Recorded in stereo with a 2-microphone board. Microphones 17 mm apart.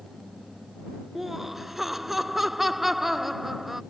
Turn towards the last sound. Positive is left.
turn(degrees=-15)  # may be behind; listen again after turning